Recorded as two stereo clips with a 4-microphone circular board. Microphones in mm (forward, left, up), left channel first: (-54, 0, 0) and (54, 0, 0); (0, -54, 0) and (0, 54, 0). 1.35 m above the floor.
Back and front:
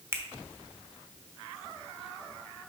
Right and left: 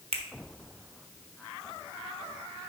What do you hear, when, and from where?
0.1 s a finger snap: 70° left, 1.0 m